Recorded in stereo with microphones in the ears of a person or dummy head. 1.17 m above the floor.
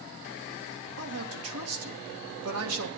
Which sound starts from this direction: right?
A woman speaking, at 1.0 s.